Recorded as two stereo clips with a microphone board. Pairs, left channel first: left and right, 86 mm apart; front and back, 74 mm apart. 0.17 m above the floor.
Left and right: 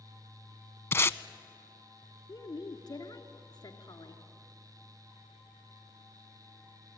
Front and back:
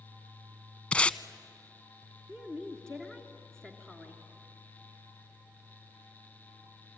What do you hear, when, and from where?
0.9 s tape being pulled: 60° left, 0.6 m
2.3 s a woman speaking: 80° left, 3 m